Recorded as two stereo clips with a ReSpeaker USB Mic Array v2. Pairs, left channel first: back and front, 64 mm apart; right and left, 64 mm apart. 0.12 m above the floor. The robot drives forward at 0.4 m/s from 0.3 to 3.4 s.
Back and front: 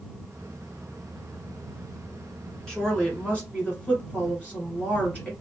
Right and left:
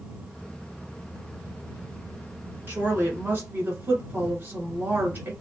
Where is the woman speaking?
110° left, 1.5 m; by 5.3 s 125° left, 1.6 m.